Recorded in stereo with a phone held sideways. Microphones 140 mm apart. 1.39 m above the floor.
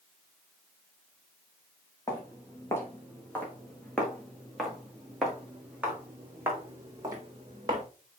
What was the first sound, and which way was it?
Footsteps, 25° left (ahead or behind).